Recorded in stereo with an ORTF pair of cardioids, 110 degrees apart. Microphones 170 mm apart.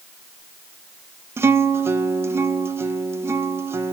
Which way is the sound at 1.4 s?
15° right.